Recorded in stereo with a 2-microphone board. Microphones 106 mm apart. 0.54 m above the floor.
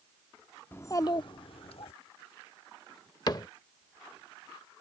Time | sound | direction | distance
0.7 | a child speaking | 20° left (ahead or behind) | ?
3.3 | a cupboard door | 40° left (ahead or behind) | ?